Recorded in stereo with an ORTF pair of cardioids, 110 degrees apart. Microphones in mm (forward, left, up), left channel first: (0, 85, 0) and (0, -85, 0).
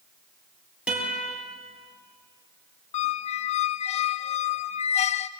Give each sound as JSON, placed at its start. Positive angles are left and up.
{"t": 0.9, "sound": "a guitar", "azimuth_deg": -5, "distance_m": 7.0}
{"t": 2.9, "sound": "a squeak", "azimuth_deg": 40, "distance_m": 0.7}